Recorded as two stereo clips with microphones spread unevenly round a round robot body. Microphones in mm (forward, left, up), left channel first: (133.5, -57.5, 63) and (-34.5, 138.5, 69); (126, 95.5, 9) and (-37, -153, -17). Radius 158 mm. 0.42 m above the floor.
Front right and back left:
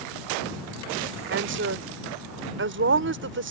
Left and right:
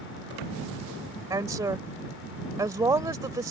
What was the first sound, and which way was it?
A woman speaking, 160° left.